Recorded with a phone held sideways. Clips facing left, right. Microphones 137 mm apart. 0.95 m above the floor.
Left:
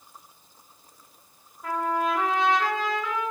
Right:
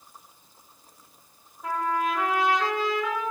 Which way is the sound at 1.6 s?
5° right (ahead or behind).